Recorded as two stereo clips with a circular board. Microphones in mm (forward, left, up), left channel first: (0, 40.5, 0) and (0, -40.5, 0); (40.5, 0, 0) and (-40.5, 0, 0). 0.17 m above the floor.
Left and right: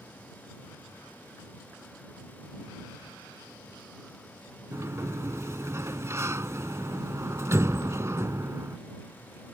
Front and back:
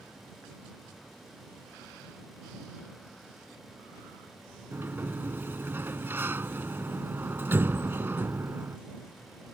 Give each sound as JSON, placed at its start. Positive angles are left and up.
{"t": 4.7, "sound": "a sliding door", "azimuth_deg": -130}